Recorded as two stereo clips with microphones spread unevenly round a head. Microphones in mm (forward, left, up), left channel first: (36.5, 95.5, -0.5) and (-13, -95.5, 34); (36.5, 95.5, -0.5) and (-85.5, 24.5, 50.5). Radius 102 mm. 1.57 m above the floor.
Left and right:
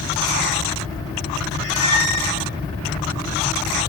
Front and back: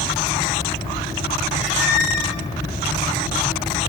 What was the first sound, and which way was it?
A squeak, 145° right.